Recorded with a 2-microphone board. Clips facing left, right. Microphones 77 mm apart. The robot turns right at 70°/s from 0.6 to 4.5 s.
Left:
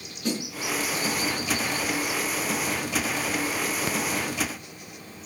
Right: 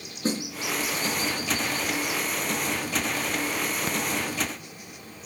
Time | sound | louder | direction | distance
0.2 | a snare drum | right 1 dB | 35° right (ahead or behind) | 3.5 m